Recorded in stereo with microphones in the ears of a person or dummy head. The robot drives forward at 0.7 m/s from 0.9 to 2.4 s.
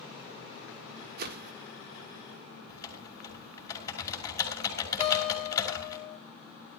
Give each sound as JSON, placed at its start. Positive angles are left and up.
{"t": 1.2, "sound": "a whoosh", "side_deg": -50, "distance_m": 1.9}
{"t": 2.7, "sound": "typing on a keyboard", "side_deg": 20, "distance_m": 5.0}
{"t": 5.0, "sound": "a guitar", "side_deg": -5, "distance_m": 9.0}